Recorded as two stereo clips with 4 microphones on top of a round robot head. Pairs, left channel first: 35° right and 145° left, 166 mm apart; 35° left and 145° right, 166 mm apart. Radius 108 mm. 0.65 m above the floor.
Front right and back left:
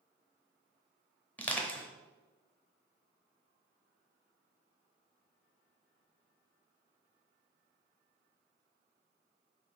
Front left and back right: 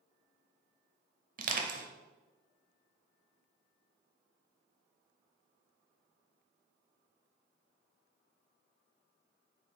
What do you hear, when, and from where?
1.4 s crushing: 115° right, 0.7 m